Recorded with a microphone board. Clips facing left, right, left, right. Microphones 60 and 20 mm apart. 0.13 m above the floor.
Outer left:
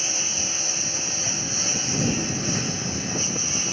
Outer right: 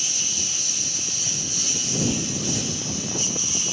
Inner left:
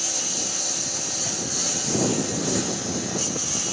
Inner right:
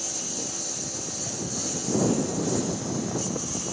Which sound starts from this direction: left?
A lawn mower, at 0.0 s.